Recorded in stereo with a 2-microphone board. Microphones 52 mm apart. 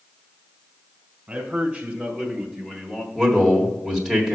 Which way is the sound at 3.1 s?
5° right (ahead or behind).